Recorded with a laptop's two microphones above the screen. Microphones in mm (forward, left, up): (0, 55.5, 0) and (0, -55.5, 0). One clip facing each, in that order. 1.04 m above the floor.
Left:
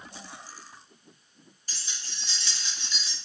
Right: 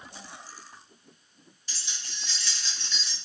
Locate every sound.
1.7 s keys jangling: 45° left (ahead or behind), 1.1 m; by 3.1 s centre (ahead or behind), 0.7 m